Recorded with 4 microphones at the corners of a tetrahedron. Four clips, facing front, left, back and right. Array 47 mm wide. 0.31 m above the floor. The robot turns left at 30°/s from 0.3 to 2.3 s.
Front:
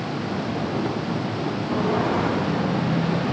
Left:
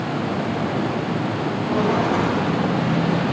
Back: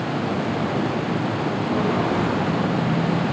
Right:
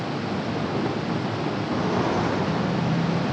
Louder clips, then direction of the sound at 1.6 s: Left 5 dB, even; 105° left.